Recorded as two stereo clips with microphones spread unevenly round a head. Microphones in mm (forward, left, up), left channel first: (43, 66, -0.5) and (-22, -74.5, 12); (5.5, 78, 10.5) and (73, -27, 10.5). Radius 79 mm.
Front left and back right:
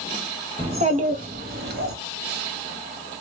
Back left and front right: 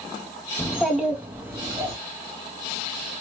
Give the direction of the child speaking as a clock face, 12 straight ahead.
5 o'clock.